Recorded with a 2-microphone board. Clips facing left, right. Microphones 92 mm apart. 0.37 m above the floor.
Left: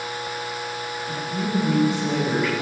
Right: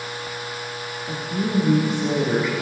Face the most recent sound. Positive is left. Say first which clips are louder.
# right 2 dB
turn(degrees=-20)  # may be behind; listen again after turning